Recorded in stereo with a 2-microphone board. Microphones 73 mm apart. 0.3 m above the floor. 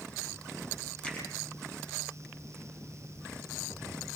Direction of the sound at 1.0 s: 20° left (ahead or behind).